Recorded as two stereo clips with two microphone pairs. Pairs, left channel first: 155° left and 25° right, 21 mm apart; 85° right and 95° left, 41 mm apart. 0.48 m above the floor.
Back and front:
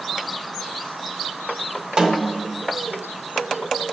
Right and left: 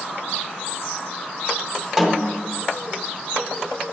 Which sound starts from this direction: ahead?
A snare drum, at 2.0 s.